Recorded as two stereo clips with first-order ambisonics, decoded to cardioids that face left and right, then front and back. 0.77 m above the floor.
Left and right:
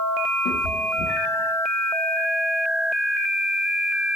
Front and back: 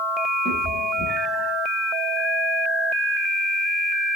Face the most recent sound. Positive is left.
turn(degrees=100)